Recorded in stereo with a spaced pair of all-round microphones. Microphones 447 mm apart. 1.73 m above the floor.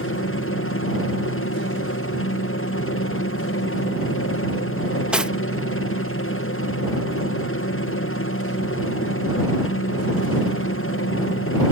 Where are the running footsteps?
No running footsteps in this recording.